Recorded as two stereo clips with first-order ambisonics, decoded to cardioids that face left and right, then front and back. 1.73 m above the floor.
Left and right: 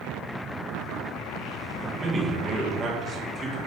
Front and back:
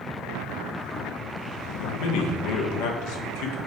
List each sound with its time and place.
1.8 s a man speaking: 20° right, 1.8 m